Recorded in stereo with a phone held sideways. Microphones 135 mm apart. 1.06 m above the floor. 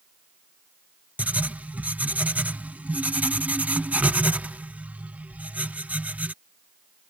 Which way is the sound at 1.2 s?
10° right (ahead or behind).